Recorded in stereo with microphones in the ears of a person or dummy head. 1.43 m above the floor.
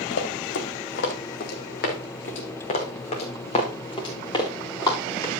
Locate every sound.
0.1 s running footsteps: 65° left (ahead or behind), 3.5 m; by 5.3 s 20° left (ahead or behind), 4 m